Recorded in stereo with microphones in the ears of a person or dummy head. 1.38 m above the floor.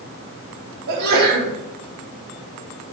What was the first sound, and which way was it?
A sneeze, 55° right (ahead or behind).